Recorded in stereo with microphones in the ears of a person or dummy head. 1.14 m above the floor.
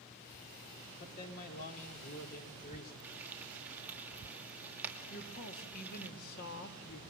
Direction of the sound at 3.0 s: 15° right (ahead or behind).